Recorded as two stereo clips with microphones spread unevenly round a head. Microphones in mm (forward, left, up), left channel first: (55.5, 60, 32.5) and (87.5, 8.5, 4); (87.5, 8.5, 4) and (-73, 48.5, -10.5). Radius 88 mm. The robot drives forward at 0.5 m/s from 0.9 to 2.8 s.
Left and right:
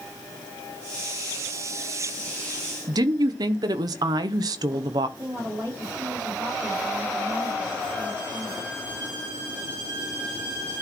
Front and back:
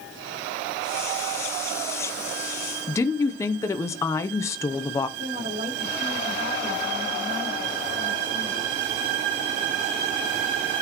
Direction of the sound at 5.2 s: 140° right.